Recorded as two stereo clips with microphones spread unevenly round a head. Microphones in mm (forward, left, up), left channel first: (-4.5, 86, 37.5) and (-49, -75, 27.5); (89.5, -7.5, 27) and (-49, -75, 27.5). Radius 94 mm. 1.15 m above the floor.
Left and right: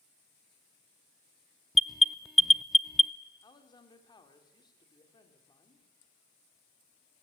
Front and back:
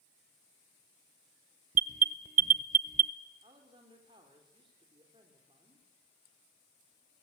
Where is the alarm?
165° left, 0.7 m.